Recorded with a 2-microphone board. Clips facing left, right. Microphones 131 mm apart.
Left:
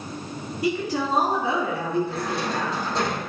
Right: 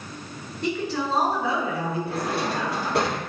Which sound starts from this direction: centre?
A woman speaking, at 0.6 s.